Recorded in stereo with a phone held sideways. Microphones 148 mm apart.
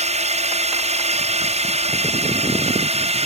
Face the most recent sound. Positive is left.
turn(degrees=-45)  # may be behind; listen again after turning